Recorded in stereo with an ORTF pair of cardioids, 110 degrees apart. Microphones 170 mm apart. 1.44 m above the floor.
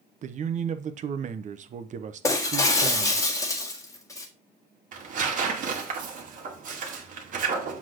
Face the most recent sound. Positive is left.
turn(degrees=-55)